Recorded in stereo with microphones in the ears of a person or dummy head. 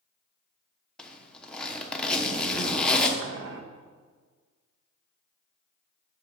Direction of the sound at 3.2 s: 65° right (ahead or behind).